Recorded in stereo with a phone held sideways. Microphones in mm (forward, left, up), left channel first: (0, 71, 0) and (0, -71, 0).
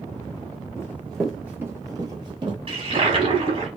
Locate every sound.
0.8 s running footsteps: 20° left (ahead or behind), 1.0 m; by 2.6 s 35° right (ahead or behind), 1.5 m
2.7 s a toilet flushing: 45° right (ahead or behind), 1.1 m